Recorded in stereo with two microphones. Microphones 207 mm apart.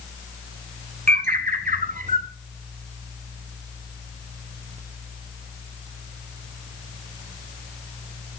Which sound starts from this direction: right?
A bird, at 1.1 s.